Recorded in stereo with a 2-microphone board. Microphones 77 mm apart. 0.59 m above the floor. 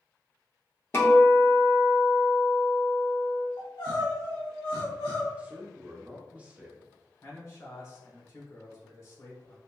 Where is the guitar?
30° left (ahead or behind), 0.9 m.